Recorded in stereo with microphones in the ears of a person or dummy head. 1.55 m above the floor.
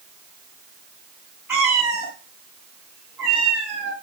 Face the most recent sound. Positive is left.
turn(degrees=-15)  # may be behind; listen again after turning